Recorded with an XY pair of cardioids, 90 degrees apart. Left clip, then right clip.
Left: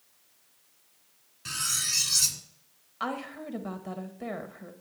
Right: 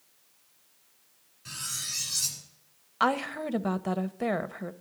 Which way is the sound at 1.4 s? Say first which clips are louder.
Left 6 dB; 70° left.